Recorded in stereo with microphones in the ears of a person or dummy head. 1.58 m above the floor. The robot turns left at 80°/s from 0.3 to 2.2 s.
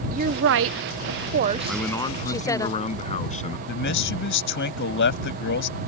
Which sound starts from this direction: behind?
A man speaking, at 1.7 s.